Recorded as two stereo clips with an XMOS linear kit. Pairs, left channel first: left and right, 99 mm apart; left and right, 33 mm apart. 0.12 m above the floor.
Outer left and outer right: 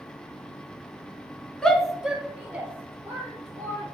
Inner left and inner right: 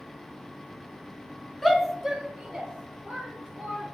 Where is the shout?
5° left (ahead or behind), 1.1 m; by 4.0 s 25° right (ahead or behind), 3 m.